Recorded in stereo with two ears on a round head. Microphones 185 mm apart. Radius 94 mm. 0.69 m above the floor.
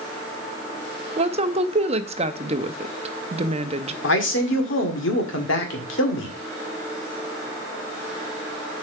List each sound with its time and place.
1.2 s a woman speaking: 30° right (ahead or behind), 0.7 m
4.0 s a man speaking: 70° left (ahead or behind), 1.8 m